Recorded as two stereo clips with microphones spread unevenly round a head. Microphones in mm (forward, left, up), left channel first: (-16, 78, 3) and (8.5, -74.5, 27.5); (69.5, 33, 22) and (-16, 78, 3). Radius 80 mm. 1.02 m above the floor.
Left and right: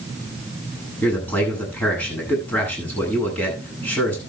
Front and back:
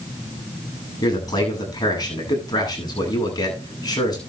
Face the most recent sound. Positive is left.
turn(degrees=20)